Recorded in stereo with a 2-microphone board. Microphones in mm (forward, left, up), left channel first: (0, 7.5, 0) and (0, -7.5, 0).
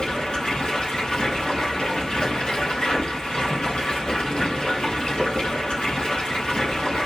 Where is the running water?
80° left, 3 m.